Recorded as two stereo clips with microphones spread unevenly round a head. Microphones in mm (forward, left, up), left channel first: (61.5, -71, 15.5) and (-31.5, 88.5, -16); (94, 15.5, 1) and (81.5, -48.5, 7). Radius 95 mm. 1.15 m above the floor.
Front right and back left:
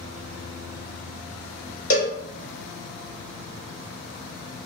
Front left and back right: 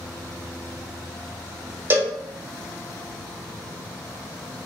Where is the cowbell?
65° right, 1.0 m.